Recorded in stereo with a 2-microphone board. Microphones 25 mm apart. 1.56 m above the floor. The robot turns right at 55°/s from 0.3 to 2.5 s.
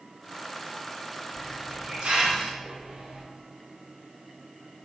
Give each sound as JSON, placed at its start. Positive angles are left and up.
{"t": 1.3, "sound": "a hiss", "azimuth_deg": -165, "distance_m": 0.6}